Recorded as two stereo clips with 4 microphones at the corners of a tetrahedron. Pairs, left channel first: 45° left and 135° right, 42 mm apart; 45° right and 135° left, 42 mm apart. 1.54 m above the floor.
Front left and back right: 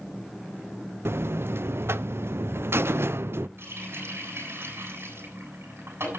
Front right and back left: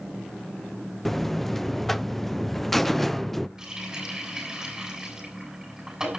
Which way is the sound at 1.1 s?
130° right.